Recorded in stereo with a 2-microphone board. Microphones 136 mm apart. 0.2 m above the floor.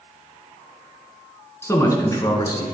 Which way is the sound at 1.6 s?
20° left (ahead or behind).